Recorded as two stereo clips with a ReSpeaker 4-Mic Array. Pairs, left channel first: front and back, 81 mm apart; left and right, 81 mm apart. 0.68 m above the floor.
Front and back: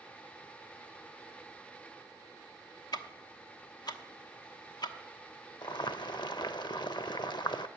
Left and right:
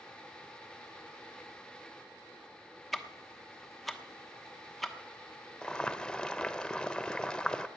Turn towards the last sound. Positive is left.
turn(degrees=10)